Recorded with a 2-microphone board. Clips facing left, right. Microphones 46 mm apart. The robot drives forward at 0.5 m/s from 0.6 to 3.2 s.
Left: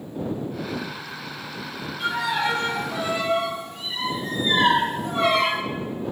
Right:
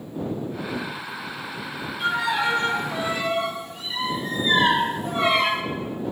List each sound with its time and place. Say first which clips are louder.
2.0 s a violin: right 1 dB; 5° right (ahead or behind), 2 m